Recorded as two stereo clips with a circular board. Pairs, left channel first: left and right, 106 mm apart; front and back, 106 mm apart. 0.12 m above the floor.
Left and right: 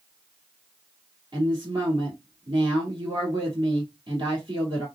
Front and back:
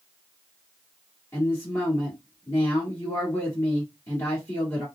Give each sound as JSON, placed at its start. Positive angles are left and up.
{"t": 1.3, "sound": "a woman speaking", "azimuth_deg": -60, "distance_m": 1.5}